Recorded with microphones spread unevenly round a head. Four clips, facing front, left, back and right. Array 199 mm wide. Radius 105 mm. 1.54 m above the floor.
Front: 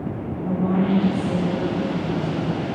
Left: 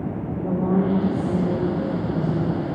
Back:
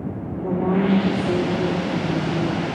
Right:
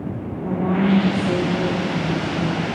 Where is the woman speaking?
175° left, 4.5 m; by 2.7 s 150° right, 3 m.